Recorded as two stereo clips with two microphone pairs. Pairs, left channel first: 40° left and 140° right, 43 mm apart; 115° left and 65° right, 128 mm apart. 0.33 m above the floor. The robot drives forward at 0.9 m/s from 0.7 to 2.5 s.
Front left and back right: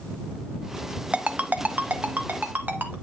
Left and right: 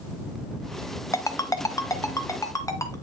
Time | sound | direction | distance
1.1 | a ringtone | 170° left | 0.6 m